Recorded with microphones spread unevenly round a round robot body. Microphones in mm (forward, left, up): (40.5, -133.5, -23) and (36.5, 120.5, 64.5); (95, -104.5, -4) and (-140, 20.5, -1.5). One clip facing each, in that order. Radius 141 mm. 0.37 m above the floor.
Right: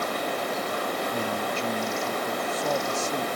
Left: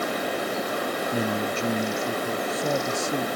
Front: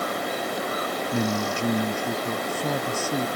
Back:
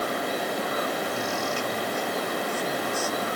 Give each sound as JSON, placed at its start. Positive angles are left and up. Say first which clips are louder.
{"t": 1.1, "sound": "a man speaking", "louder": "left 3 dB, front 4 dB", "azimuth_deg": 15}